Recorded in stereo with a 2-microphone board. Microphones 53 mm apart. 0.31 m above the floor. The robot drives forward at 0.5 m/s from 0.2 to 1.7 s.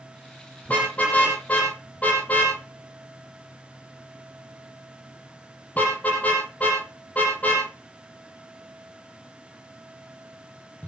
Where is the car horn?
25° left (ahead or behind), 6 m; by 10.9 s 30° left (ahead or behind), 5.5 m.